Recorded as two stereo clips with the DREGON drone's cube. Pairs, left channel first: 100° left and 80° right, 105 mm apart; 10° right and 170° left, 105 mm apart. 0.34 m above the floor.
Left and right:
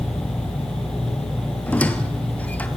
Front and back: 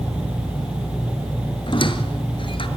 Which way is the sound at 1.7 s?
25° left.